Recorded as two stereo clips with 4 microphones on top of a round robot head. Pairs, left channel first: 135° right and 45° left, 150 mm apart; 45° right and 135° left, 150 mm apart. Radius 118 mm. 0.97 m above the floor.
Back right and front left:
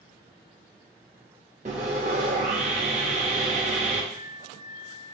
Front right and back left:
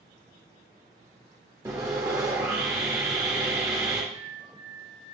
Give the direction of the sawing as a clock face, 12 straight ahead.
10 o'clock.